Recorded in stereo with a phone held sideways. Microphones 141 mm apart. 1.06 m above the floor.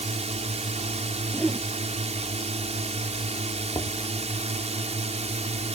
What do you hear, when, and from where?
0.0 s a drone: 50° right (ahead or behind)
1.3 s a whoosh: 5° right (ahead or behind)
3.7 s knocking: 35° left (ahead or behind)